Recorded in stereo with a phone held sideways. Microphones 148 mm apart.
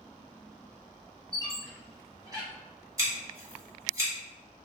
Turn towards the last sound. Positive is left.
turn(degrees=-25)  # may be behind; listen again after turning